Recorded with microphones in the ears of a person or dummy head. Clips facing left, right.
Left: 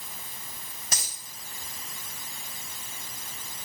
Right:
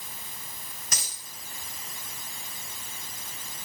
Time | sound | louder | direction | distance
0.9 | a dropped coin | left 3 dB | 35° left (ahead or behind) | 5 m